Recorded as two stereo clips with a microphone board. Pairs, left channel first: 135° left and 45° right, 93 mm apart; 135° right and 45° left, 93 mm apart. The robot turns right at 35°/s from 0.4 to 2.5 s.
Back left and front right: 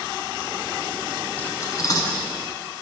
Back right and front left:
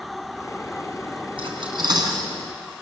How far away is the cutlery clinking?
About 3.5 m.